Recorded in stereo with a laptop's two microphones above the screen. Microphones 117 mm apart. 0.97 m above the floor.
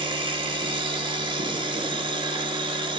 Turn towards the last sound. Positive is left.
turn(degrees=-45)  # may be behind; listen again after turning